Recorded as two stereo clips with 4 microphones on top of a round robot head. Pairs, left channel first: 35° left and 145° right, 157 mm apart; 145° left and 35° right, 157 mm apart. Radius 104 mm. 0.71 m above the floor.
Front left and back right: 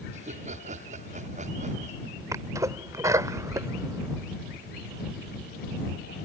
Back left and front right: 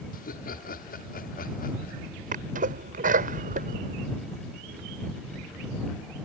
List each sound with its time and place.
0.1 s laughter: 175° left
2.3 s a sneeze: 75° right